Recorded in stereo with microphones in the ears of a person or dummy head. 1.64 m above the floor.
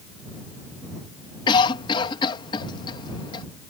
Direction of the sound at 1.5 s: 30° left (ahead or behind).